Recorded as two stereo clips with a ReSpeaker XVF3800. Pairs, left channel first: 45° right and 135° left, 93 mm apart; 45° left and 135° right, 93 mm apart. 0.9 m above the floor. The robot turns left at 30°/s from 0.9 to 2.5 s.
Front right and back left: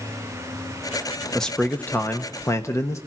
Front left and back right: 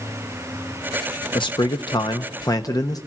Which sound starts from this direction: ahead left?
A man speaking, at 1.4 s.